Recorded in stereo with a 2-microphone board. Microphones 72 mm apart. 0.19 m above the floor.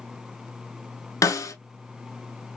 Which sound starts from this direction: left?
A snare drum, at 1.2 s.